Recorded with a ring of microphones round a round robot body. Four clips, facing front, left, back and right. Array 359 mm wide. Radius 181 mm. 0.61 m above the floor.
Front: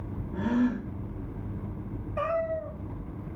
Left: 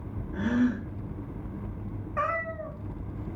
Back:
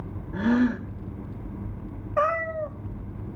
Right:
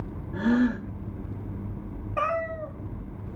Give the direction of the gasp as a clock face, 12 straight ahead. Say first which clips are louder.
Right 3 dB, back 4 dB; 6 o'clock.